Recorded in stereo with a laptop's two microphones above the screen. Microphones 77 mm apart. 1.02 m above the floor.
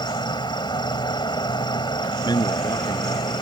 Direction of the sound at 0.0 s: 80° left.